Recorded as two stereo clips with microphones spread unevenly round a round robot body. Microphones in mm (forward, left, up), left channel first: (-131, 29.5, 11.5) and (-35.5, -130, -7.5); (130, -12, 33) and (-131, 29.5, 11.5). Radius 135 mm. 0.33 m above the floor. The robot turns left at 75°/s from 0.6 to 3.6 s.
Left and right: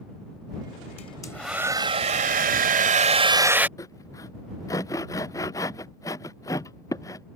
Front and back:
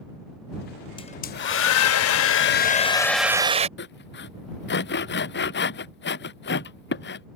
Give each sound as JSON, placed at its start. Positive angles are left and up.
{"t": 1.0, "sound": "a hair dryer", "azimuth_deg": 65}
{"t": 3.8, "sound": "sawing", "azimuth_deg": 40}